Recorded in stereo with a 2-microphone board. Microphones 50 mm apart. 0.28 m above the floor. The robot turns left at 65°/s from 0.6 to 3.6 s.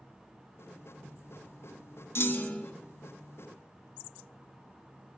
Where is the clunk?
55° left, 0.6 m; by 2.7 s 20° left, 0.6 m.